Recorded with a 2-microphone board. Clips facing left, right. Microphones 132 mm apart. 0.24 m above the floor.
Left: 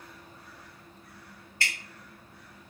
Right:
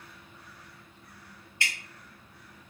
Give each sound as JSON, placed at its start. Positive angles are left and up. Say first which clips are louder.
{"t": 1.6, "sound": "dripping", "louder": "even", "side_deg": -20, "distance_m": 1.7}